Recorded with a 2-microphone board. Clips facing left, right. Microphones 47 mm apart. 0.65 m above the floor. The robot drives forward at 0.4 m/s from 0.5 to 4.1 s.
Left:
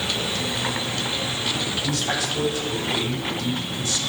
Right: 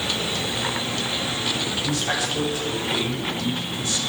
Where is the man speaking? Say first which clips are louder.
Right 1 dB; 15° right (ahead or behind), 2.5 m; by 4.0 s 20° right (ahead or behind), 1.9 m.